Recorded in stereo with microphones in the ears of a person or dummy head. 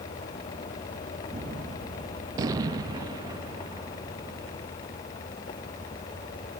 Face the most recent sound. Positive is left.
turn(degrees=-20)  # may be behind; listen again after turning